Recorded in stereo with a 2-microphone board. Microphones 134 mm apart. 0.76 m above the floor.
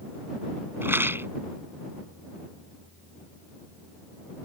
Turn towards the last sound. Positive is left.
turn(degrees=-15)  # may be behind; listen again after turning